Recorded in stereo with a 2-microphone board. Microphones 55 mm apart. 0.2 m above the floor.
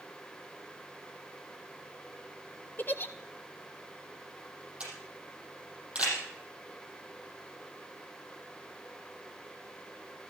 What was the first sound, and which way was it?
A giggle, 35° left (ahead or behind).